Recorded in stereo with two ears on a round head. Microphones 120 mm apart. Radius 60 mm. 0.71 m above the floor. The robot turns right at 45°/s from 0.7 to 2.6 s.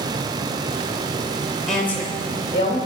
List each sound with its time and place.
1.7 s a woman speaking: 5° left, 3 m; by 2.8 s 45° left, 3 m